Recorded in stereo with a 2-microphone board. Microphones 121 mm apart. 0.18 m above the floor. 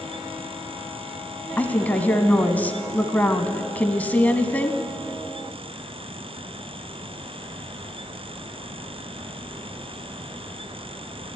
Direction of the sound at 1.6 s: 15° left (ahead or behind).